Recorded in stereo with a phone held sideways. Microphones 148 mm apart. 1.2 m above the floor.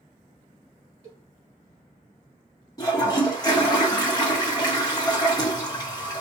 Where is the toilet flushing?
25° left (ahead or behind), 1.2 m.